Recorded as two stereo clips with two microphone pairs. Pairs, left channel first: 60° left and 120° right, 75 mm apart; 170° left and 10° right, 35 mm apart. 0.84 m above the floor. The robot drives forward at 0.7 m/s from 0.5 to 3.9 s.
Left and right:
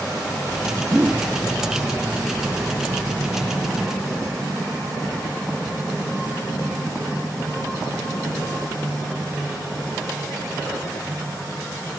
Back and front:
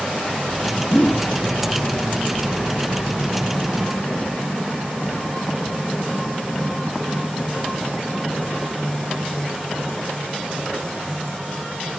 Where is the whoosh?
Straight behind, 1.1 m.